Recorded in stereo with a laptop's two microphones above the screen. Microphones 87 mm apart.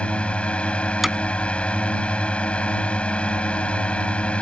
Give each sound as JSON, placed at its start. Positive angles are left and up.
{"t": 0.0, "sound": "a drone", "side_deg": 15}
{"t": 1.0, "sound": "hammering", "side_deg": 0}